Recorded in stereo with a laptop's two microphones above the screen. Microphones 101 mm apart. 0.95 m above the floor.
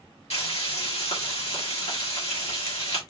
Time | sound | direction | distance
0.3 | frying | 80° left | 1.8 m